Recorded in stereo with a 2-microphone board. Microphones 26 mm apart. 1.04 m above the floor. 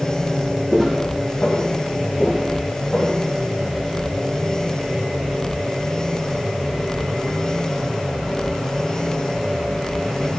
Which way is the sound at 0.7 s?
20° left (ahead or behind).